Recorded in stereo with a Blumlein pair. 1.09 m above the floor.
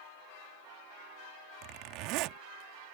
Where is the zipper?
40° right.